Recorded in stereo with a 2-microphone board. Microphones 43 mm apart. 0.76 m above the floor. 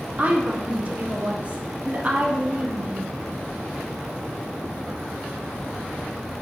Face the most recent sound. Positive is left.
turn(degrees=-35)  # may be behind; listen again after turning